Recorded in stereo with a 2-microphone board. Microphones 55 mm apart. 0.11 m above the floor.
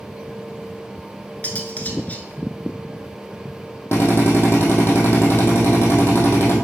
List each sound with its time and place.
1.4 s cutlery clinking: 30° left (ahead or behind), 0.8 m
3.9 s a drill: 45° left (ahead or behind), 1.9 m